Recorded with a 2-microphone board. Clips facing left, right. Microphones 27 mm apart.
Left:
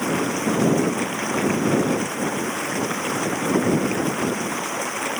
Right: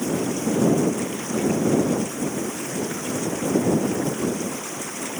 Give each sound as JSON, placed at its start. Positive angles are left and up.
{"t": 0.0, "sound": "running water", "side_deg": 55}